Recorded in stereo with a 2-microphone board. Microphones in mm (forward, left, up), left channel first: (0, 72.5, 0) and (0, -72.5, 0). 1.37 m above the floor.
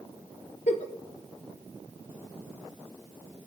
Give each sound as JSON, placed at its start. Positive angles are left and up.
{"t": 0.7, "sound": "a giggle", "side_deg": 55, "distance_m": 0.8}